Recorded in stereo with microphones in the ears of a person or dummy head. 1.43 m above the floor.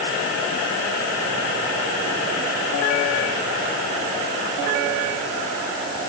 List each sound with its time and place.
Only background noise.